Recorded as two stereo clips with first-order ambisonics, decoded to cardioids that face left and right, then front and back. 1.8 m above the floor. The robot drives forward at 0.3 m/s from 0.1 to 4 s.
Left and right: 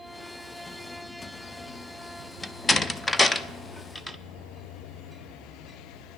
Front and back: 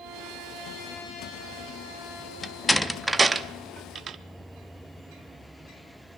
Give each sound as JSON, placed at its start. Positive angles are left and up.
{"t": 2.4, "sound": "a door slam", "azimuth_deg": 35, "distance_m": 0.5}